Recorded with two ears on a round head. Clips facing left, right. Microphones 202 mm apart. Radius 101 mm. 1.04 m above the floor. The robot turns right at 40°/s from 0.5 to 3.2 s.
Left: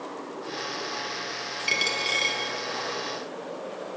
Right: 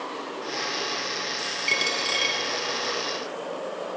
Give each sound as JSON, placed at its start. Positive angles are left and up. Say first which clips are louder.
{"t": 1.7, "sound": "a dropped coin", "louder": "right 1 dB", "side_deg": 5, "distance_m": 3.0}